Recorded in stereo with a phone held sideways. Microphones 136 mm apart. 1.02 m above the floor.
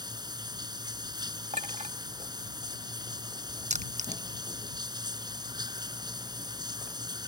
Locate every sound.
0.0 s running water: 30° right (ahead or behind)
1.5 s a clink: 55° right (ahead or behind)
3.7 s crushing: 60° right (ahead or behind)